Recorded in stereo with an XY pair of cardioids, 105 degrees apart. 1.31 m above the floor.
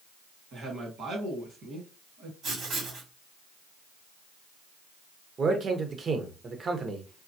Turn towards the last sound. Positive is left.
turn(degrees=-45)